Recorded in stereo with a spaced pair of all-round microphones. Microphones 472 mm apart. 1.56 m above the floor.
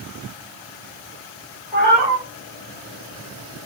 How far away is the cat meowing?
About 1.1 m.